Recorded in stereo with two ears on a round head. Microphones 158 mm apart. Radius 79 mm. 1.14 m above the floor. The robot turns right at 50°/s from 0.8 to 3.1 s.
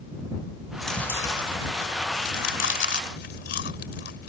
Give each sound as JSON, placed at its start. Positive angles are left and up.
{"t": 0.7, "sound": "chewing", "side_deg": 0}